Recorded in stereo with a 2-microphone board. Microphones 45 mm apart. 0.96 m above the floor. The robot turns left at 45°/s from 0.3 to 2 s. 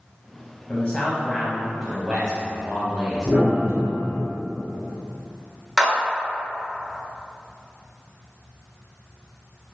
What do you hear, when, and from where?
0.7 s a man speaking: 35° left, 0.7 m; by 4.2 s 25° right, 0.7 m
3.2 s a piano: 60° right (ahead or behind), 1.9 m
5.8 s a clap: 10° right (ahead or behind), 1.3 m